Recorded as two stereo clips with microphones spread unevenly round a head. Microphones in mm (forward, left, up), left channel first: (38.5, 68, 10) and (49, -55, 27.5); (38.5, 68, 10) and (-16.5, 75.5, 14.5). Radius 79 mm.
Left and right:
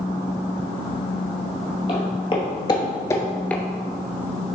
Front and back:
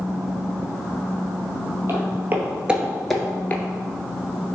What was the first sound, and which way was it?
Footsteps, 155° left.